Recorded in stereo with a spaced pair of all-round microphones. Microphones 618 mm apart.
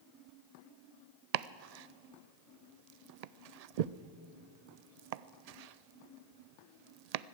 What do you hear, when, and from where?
1.3 s chopping: 80° right, 0.5 m